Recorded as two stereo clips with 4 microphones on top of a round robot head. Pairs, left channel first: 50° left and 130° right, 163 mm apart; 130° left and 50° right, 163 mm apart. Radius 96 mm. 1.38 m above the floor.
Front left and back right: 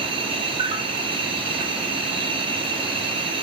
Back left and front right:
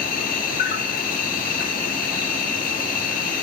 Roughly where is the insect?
Behind.